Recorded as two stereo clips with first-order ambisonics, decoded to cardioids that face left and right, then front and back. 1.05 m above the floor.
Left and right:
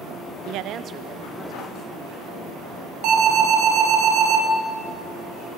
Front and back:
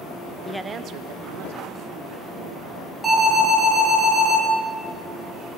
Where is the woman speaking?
75° right, 0.7 m; by 2.9 s 165° left, 3 m.